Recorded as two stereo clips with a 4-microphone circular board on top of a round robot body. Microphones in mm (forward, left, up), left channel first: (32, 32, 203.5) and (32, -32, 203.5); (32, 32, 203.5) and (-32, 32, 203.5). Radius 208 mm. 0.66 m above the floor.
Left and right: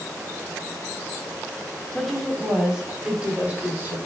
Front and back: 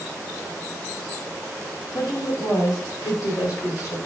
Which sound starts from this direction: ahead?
A woman speaking, at 1.9 s.